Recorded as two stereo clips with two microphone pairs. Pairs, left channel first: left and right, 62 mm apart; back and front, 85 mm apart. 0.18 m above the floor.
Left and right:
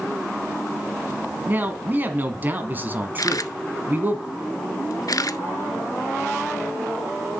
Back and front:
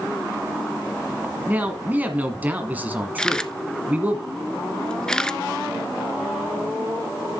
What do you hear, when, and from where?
1.5 s a man speaking: 55° right, 1.7 m
3.2 s a camera shutter: 95° left, 0.5 m